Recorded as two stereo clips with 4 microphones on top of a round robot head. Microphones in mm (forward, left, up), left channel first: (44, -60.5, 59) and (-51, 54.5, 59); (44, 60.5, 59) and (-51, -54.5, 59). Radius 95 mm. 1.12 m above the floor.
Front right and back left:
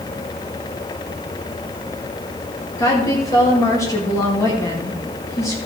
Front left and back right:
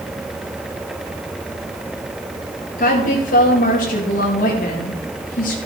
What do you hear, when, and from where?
2.8 s a woman speaking: 20° left, 2.0 m